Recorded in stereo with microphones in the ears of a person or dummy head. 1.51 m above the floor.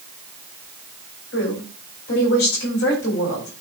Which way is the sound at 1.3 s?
65° left (ahead or behind).